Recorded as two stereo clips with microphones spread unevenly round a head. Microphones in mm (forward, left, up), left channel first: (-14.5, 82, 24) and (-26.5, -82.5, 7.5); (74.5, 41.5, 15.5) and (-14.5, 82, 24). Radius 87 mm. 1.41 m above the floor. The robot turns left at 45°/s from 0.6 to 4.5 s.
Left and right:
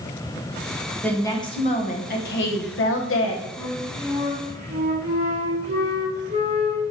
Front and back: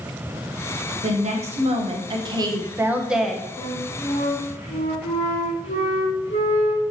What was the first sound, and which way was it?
A woman speaking, 170° left.